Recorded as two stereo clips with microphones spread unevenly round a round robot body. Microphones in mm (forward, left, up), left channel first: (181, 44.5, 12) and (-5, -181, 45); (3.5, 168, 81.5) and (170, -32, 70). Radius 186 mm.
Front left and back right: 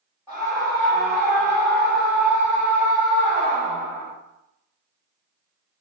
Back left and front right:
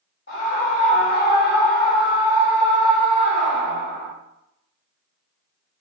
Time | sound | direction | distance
0.3 | a scream | 145° left | 1.5 m